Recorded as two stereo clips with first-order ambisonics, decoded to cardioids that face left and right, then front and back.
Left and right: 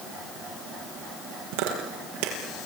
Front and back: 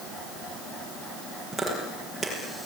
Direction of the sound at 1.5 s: 90° right.